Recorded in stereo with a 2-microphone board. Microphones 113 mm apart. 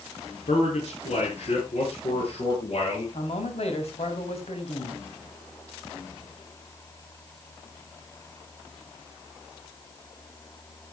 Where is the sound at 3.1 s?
65° left (ahead or behind), 3 m.